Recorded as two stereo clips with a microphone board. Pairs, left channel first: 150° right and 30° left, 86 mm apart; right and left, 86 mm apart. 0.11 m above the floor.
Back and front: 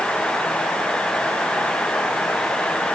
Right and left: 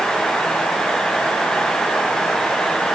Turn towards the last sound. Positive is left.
No sound to turn to.